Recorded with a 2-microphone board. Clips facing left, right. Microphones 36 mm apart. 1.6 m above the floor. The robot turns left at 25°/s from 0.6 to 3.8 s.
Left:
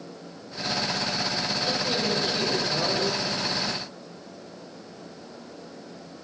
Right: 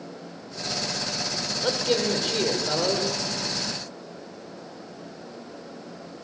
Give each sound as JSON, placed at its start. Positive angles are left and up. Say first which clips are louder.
{"t": 1.6, "sound": "a man speaking", "louder": "right 5 dB", "azimuth_deg": -110, "distance_m": 6.5}